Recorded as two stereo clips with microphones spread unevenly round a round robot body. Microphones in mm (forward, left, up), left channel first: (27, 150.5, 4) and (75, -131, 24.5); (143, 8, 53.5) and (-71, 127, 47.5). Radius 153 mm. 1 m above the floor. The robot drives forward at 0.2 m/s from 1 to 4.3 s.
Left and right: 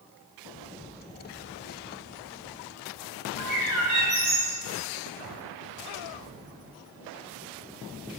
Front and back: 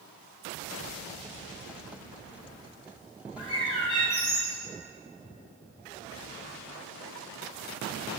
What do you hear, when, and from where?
3.4 s a bird: 90° right, 2.5 m; by 4.6 s 95° right, 2.5 m